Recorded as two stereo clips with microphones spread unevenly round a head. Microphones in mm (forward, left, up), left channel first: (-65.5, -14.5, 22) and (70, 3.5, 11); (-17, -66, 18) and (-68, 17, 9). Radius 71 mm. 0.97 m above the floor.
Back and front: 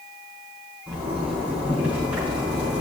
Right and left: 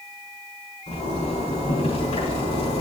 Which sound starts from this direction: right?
A zipper, at 0.9 s.